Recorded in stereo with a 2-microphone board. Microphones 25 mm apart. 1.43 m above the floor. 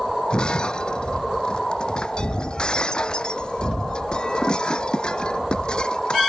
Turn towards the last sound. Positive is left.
turn(degrees=35)  # may be behind; listen again after turning